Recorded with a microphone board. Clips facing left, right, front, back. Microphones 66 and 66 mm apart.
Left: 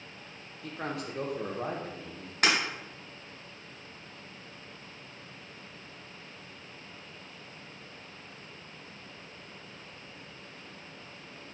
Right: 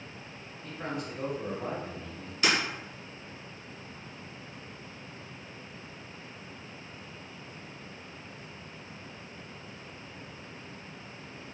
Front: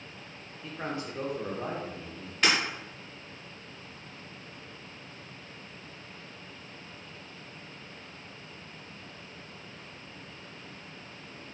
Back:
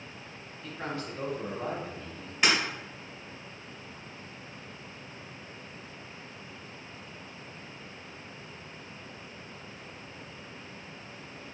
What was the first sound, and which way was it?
A man speaking, 70° left.